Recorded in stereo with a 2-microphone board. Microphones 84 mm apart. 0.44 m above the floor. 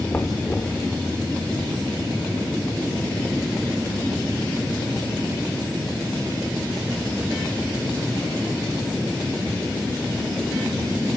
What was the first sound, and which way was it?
Knocking, 25° left (ahead or behind).